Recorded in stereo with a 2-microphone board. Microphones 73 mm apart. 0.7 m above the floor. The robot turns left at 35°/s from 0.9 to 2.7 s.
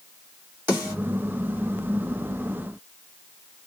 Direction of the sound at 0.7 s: 30° right (ahead or behind).